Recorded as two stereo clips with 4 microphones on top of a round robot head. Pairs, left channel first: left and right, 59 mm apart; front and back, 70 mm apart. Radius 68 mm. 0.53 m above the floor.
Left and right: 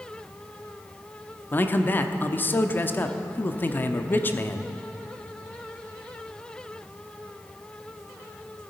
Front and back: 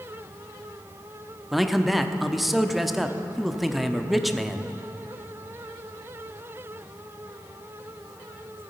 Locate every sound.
1.5 s a man speaking: 95° left, 0.8 m